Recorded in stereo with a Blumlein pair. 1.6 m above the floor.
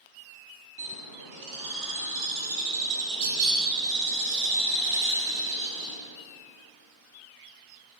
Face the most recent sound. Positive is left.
turn(degrees=-45)